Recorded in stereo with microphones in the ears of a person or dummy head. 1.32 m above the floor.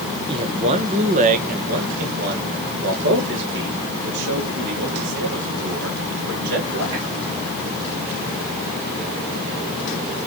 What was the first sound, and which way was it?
A man speaking, 25° right (ahead or behind).